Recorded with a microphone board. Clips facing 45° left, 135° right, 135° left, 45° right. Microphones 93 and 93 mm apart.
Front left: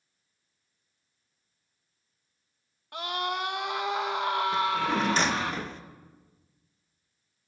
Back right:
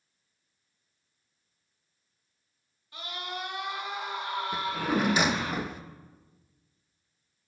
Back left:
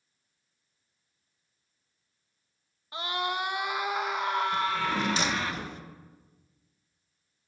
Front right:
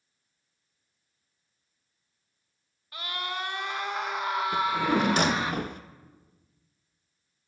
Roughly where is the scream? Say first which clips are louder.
Front left 7 dB, back left 4 dB; left.